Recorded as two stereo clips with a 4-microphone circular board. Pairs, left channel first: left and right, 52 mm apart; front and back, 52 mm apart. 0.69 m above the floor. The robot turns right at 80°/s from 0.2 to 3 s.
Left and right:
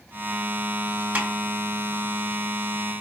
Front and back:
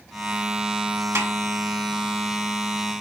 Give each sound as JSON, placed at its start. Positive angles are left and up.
{"t": 1.1, "sound": "a snare drum", "azimuth_deg": -150, "distance_m": 1.8}